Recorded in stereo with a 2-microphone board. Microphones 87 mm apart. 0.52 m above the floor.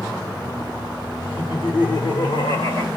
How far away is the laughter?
About 1.9 m.